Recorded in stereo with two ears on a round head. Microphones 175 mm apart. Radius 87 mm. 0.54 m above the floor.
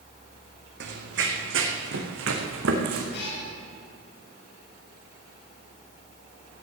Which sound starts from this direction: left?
A cat meowing, at 3.1 s.